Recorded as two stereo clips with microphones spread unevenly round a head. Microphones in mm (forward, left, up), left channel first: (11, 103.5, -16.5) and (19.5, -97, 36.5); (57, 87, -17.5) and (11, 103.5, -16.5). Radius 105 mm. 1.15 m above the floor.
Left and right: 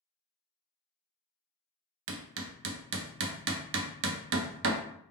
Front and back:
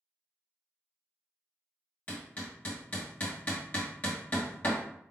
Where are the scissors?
I don't hear scissors.